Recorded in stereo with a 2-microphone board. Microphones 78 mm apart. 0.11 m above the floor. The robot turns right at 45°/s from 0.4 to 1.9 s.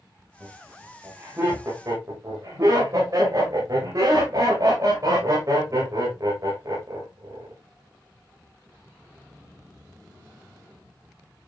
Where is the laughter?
20° left (ahead or behind), 8 m; by 7.5 s 45° right (ahead or behind), 8 m.